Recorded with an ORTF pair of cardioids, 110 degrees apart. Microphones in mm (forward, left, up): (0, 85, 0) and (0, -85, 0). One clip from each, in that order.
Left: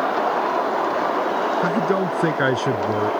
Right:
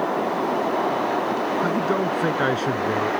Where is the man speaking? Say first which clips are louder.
Left 2 dB; 45° left.